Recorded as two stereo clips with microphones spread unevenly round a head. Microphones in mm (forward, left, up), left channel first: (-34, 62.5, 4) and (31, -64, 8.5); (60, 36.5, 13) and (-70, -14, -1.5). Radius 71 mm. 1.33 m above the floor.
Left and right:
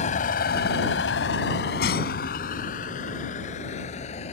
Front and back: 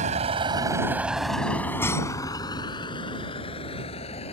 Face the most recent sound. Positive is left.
turn(degrees=70)